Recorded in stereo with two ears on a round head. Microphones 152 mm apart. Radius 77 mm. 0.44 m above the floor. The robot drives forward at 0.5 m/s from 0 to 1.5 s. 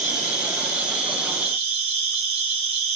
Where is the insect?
20° right (ahead or behind), 1.7 m; by 3.0 s 35° right (ahead or behind), 1.1 m.